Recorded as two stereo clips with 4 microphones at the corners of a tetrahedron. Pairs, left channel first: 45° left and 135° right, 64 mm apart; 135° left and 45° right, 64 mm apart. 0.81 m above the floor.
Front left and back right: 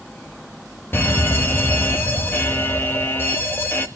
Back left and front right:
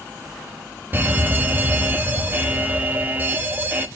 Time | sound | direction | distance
0.9 | an alarm | straight ahead | 1.4 m